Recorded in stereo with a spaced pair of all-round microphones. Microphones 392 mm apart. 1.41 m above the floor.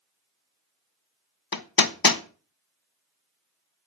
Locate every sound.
1.5 s hammering: 60° left (ahead or behind), 0.7 m